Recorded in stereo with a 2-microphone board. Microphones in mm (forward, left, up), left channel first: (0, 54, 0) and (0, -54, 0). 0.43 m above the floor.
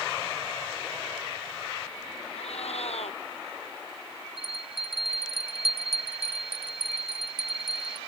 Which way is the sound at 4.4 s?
70° right (ahead or behind).